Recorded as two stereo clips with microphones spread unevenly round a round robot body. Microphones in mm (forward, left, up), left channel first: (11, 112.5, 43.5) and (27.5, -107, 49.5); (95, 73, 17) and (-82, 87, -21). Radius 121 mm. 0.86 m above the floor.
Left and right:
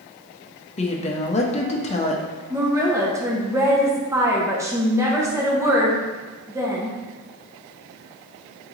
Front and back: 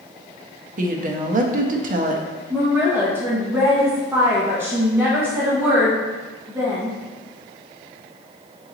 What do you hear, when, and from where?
0.8 s a woman speaking: 150° left, 0.6 m
2.5 s a woman speaking: 150° right, 0.7 m